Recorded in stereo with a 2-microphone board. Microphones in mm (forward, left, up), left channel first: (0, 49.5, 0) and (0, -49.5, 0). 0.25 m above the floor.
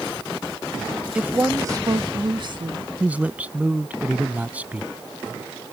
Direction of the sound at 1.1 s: 10° right (ahead or behind).